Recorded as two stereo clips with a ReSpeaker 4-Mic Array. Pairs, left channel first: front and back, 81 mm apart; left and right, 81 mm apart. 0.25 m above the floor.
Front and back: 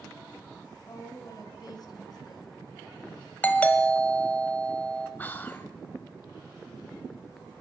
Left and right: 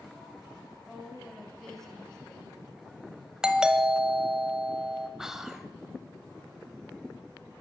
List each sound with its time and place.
0.9 s a woman speaking: 5° right, 2 m; by 2.7 s 10° left, 3 m
3.4 s a doorbell: 25° right, 1.4 m
5.2 s whispering: 15° right, 1.0 m